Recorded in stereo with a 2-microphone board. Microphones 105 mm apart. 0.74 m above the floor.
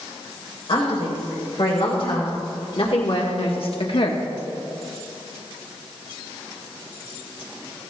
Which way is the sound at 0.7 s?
60° left (ahead or behind).